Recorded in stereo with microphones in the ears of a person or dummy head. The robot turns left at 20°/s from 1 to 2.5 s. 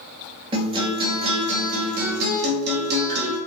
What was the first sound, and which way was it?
A guitar, 25° right.